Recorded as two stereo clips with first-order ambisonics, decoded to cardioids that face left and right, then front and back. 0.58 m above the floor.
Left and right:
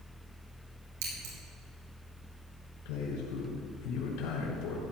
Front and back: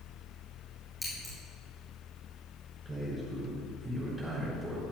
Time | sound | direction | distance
1.0 | scissors | 95° right | 6 m
2.9 | a man speaking | 100° left | 6 m